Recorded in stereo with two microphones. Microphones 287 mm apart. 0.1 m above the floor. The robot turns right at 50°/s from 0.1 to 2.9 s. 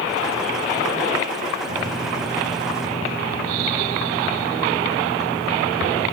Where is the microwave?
65° right, 1.9 m; by 6.1 s straight ahead, 1.9 m.